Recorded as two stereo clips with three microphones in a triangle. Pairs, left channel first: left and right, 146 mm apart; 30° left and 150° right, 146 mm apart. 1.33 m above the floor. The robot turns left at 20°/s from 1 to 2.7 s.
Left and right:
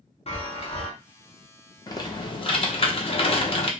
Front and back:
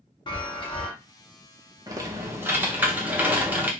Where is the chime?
70° left, 0.8 m.